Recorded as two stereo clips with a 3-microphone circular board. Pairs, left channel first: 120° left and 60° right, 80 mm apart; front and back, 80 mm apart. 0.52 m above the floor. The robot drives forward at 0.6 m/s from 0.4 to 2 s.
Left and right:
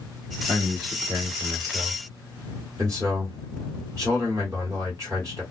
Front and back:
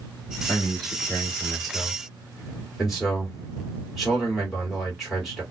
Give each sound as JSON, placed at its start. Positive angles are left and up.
{"t": 0.5, "sound": "a man speaking", "azimuth_deg": -60, "distance_m": 2.0}